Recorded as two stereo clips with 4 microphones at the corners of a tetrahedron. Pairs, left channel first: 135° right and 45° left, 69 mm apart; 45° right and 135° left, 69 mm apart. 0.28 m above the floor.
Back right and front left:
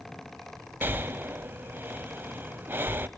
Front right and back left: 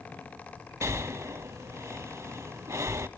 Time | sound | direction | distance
0.8 | breathing | 100° left | 0.6 m